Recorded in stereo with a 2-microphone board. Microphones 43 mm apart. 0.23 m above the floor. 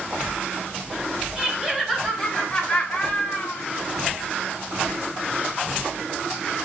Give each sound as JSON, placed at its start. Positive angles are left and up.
{"t": 1.4, "sound": "laughter", "side_deg": -15, "distance_m": 1.2}